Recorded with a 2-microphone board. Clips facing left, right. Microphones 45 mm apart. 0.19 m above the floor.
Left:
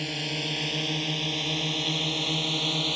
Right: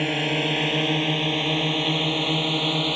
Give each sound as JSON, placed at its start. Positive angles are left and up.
{"t": 0.0, "sound": "a drone", "side_deg": -35}